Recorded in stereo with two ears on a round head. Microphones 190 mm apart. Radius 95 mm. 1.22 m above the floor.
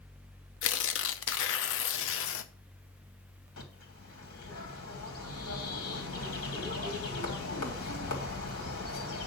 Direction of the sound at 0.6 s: 65° left (ahead or behind).